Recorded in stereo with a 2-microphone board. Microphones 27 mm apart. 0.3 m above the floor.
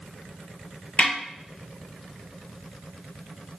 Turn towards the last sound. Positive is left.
turn(degrees=60)  # may be behind; listen again after turning